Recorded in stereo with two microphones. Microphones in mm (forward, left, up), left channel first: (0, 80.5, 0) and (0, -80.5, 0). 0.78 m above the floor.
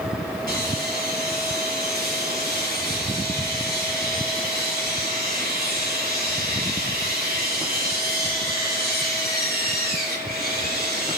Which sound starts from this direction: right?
Sawing, at 0.5 s.